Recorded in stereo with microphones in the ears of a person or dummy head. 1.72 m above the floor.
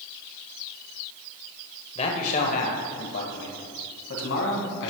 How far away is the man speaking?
About 1.1 m.